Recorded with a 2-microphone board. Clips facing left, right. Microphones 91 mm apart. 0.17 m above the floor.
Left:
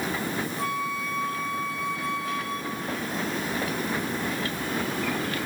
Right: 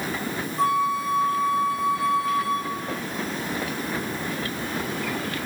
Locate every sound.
0.6 s a flute: 40° right (ahead or behind), 1.5 m